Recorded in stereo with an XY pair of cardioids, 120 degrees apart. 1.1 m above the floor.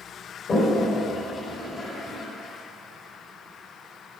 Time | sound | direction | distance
0.5 | a toilet flushing | 35° left | 1.3 m